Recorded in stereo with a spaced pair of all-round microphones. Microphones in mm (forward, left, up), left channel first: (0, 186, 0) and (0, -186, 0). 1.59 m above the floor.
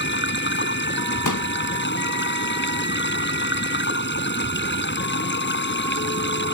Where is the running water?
30° left (ahead or behind).